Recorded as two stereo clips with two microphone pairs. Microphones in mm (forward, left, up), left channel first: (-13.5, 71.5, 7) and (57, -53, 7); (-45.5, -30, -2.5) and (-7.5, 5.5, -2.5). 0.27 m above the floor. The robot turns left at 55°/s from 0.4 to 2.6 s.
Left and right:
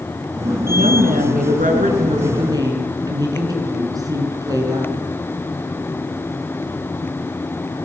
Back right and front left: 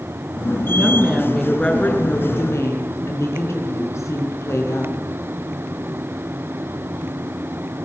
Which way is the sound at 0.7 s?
15° right.